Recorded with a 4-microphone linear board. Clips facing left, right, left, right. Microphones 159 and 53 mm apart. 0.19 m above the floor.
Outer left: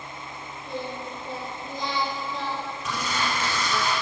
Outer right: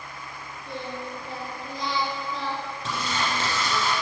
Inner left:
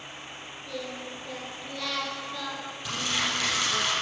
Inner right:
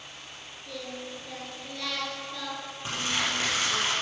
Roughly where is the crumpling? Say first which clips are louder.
Even, even; right.